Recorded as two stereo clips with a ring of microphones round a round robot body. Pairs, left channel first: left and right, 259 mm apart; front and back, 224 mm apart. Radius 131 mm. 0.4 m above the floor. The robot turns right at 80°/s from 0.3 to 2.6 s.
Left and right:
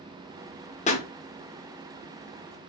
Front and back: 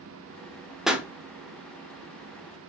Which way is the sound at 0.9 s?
95° left.